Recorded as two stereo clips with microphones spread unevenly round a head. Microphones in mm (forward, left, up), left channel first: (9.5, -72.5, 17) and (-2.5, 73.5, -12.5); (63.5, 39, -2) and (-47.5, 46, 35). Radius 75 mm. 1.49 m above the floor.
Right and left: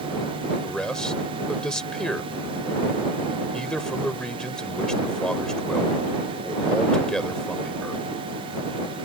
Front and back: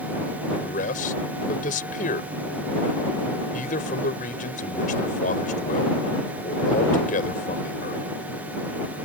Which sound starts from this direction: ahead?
A man speaking, at 0.6 s.